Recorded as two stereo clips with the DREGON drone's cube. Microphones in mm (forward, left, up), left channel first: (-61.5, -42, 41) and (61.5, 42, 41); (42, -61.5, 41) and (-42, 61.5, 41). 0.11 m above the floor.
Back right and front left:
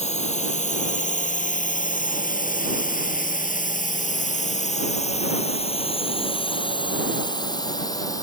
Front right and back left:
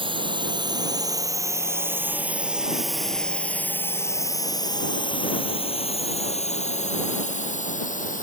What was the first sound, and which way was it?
A drone, straight behind.